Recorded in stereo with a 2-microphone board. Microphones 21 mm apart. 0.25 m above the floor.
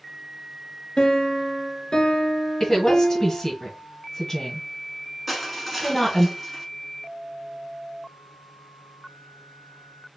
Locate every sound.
1.0 s a piano: 35° left (ahead or behind), 0.9 m
2.6 s a woman speaking: 25° left (ahead or behind), 1.5 m
5.3 s crushing: 5° right (ahead or behind), 1.0 m